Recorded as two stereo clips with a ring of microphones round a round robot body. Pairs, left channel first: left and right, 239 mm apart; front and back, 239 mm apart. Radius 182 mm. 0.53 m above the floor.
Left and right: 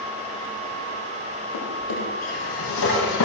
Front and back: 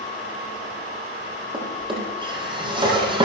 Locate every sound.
1.5 s a drawer: 110° left, 9 m